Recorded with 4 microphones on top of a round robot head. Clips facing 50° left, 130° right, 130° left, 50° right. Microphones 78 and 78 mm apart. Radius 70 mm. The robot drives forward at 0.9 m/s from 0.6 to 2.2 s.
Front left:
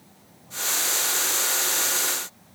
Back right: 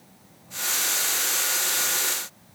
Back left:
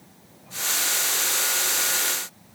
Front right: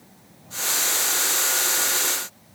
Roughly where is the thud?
No thud in this recording.